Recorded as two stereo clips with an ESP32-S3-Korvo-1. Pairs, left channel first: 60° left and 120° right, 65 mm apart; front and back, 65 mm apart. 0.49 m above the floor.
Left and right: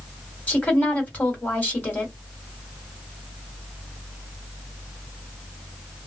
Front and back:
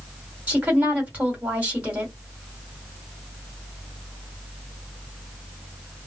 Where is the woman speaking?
120° left, 1.7 m.